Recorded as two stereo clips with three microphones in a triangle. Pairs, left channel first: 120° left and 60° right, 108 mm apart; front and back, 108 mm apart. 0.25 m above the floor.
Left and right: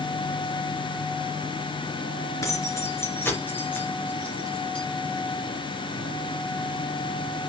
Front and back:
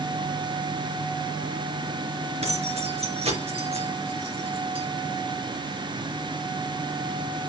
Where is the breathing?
No breathing in this recording.